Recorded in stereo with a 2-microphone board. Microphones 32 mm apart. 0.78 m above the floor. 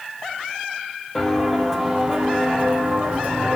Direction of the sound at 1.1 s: 5° left (ahead or behind).